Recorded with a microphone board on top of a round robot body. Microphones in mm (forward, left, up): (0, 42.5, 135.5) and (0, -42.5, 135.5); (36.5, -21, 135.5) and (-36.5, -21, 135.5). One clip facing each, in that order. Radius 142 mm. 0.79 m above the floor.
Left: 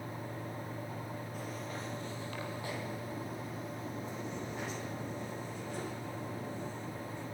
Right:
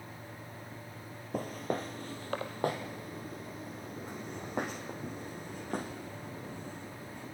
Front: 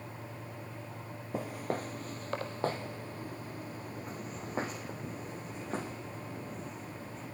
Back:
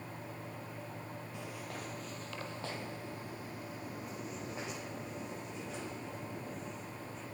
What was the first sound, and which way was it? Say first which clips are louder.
Footsteps: right 12 dB, front 12 dB; 45° right.